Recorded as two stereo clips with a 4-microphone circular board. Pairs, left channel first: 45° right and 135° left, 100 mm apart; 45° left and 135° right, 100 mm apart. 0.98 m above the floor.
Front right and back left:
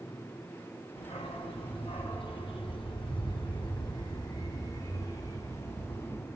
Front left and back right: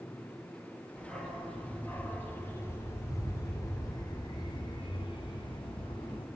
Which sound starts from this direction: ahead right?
A dog barking, at 1.0 s.